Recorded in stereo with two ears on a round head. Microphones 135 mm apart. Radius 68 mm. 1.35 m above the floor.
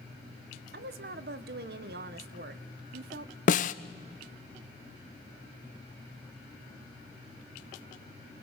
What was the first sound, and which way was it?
A woman speaking, 70° right (ahead or behind).